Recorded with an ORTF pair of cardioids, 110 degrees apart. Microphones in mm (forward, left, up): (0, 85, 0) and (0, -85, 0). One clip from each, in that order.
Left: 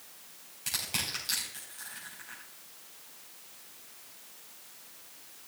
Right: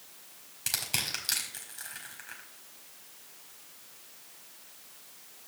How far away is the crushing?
About 4.5 m.